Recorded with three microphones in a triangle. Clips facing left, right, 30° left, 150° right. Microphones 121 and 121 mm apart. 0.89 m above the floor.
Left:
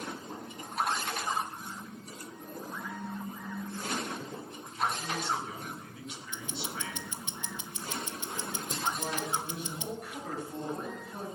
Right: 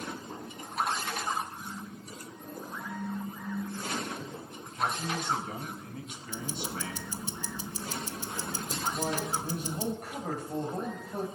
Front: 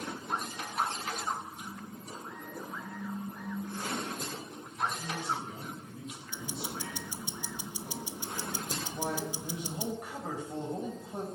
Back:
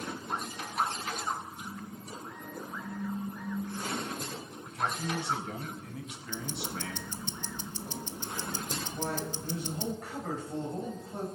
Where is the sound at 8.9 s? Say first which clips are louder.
Right 2 dB, even; 50° right, 5 m.